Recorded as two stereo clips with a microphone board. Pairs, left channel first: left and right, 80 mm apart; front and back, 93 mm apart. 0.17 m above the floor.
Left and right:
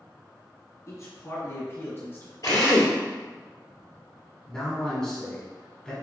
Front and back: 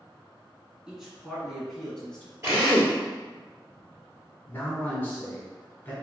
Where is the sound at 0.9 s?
100° left, 1.8 m; by 2.3 s 70° left, 1.5 m.